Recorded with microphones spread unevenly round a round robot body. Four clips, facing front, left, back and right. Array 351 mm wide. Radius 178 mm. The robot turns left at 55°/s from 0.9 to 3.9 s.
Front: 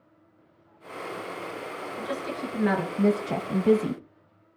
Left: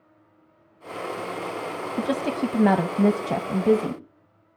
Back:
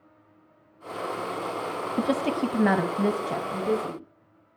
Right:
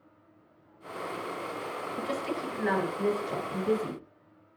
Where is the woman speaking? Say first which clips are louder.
Left 9 dB, back 8 dB; 150° left, 2.5 m; by 4.0 s 40° left, 2.5 m.